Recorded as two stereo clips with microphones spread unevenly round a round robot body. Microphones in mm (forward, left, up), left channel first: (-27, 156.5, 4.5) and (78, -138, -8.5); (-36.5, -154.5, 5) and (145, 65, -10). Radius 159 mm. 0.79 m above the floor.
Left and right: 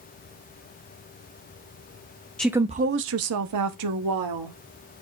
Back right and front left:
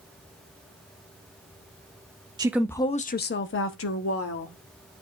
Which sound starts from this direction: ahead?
A woman speaking, at 2.4 s.